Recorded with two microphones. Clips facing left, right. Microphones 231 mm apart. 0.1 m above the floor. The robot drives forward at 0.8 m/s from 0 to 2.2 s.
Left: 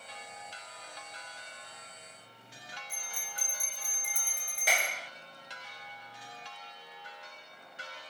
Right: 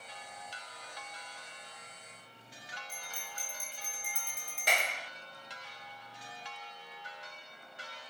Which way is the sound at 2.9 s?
Centre (ahead or behind).